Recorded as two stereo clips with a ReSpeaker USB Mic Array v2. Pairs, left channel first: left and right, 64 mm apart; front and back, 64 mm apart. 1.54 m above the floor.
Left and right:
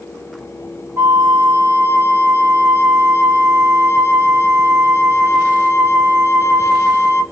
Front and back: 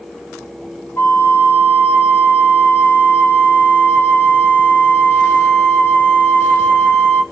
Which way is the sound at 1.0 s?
50° right.